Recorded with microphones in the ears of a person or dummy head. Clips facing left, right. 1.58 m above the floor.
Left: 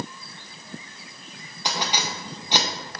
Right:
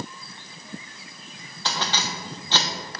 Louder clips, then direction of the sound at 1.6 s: Left 1 dB; 10° left (ahead or behind).